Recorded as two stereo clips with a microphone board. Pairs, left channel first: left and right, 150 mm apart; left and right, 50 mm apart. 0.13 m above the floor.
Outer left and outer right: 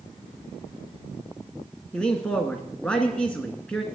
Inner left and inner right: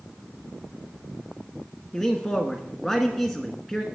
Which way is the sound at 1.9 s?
5° left (ahead or behind).